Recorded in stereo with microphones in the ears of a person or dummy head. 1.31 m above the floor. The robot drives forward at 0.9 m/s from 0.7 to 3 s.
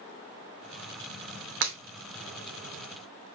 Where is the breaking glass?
60° right (ahead or behind), 0.9 m.